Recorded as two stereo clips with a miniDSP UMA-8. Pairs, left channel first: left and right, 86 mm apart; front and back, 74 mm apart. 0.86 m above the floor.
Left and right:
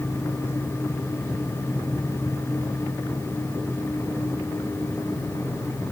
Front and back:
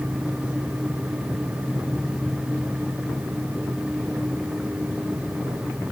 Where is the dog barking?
No dog barking in this recording.